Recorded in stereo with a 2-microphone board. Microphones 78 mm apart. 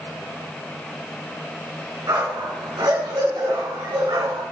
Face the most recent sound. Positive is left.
turn(degrees=-75)  # may be behind; listen again after turning